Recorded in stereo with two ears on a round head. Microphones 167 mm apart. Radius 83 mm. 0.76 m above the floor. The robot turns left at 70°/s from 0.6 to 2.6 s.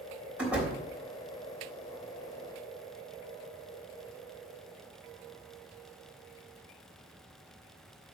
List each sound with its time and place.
0.4 s a door slam: 10° right (ahead or behind), 3.5 m; by 0.8 s 20° right (ahead or behind), 3.5 m